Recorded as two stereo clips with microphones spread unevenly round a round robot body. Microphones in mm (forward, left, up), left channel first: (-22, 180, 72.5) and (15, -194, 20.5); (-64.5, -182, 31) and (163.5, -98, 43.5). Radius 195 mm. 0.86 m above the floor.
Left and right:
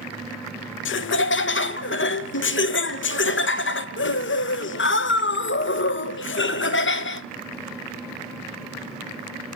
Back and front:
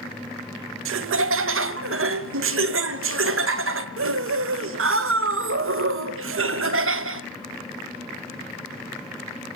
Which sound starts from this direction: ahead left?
Laughter, at 0.8 s.